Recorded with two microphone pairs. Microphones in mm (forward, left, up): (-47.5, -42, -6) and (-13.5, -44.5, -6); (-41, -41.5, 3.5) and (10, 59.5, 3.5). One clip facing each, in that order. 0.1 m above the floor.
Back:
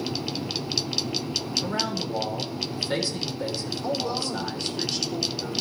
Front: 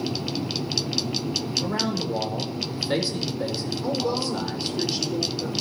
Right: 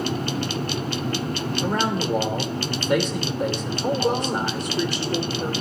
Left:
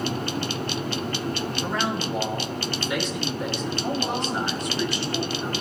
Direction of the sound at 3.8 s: 75° right.